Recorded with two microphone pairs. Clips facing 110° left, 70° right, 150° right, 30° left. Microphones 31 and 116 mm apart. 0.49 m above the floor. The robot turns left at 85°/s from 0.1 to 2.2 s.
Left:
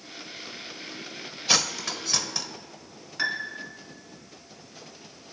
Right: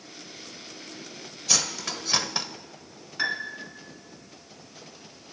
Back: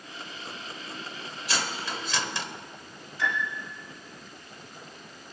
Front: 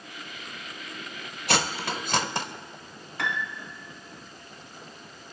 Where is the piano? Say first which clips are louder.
Even, back 1 dB; 15° left, 1.7 m.